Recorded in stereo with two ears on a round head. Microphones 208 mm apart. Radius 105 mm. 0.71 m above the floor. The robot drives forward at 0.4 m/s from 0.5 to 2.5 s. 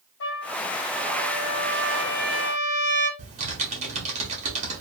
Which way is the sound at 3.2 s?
30° right (ahead or behind).